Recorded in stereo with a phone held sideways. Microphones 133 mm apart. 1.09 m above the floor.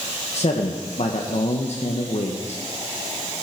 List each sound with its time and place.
0.3 s a man speaking: 55° left (ahead or behind), 1.1 m